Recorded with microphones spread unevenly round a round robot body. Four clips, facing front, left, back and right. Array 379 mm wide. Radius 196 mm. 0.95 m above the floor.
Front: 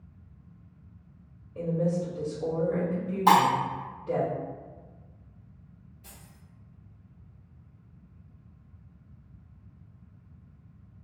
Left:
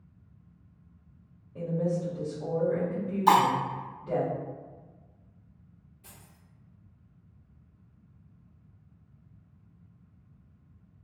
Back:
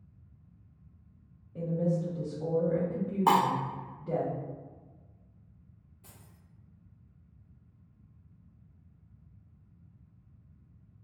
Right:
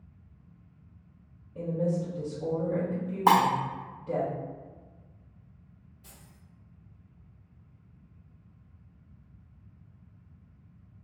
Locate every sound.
1.6 s a woman speaking: 170° left, 1.3 m
3.3 s breaking glass: 85° right, 0.7 m
6.0 s keys jangling: 165° left, 1.4 m